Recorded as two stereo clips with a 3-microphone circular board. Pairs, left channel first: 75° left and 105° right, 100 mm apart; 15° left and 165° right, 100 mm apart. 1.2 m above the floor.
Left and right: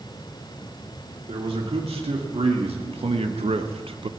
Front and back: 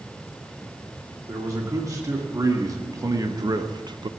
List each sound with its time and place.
1.3 s a man speaking: 110° right, 2.5 m; by 4.1 s 130° right, 0.5 m